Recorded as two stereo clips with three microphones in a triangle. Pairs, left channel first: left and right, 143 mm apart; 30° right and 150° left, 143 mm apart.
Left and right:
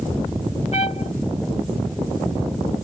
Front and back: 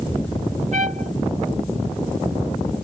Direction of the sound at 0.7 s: 130° left.